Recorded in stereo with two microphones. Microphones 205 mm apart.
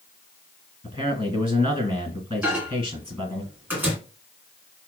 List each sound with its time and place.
0.8 s a man speaking: 15° left (ahead or behind), 1.6 m
2.4 s a microwave: 10° right (ahead or behind), 1.8 m